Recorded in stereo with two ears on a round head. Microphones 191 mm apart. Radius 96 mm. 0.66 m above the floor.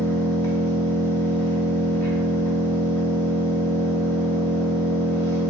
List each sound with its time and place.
0.0 s an engine running: 10° left (ahead or behind), 0.8 m